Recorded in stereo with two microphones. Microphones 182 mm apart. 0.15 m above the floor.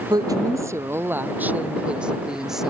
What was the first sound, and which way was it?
A woman speaking, 20° right (ahead or behind).